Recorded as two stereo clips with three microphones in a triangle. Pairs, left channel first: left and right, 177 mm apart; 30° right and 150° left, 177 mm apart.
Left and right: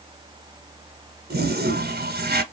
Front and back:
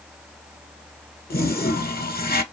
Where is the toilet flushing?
65° right, 0.7 m.